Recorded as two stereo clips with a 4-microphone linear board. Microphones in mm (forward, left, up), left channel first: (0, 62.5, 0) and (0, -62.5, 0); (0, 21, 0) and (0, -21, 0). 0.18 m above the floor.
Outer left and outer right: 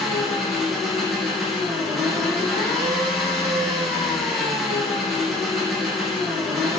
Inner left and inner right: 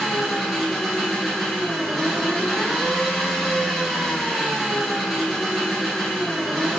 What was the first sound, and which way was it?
An engine running, centre (ahead or behind).